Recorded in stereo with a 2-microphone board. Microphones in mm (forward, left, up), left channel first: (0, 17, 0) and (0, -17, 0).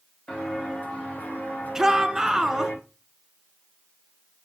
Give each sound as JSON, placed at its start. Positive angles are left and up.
{"t": 0.3, "sound": "footsteps", "side_deg": 30, "distance_m": 3.5}
{"t": 1.8, "sound": "a shout", "side_deg": -20, "distance_m": 1.4}